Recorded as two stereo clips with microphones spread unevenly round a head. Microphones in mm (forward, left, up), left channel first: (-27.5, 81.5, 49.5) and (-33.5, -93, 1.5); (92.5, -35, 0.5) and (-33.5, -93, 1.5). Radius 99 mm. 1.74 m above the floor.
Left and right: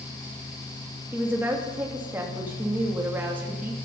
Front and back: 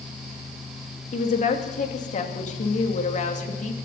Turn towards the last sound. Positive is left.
turn(degrees=-5)